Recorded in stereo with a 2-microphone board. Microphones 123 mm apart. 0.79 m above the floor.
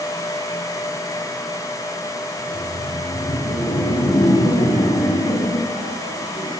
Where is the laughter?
70° left (ahead or behind), 3 m; by 6.5 s 80° left, 8.5 m.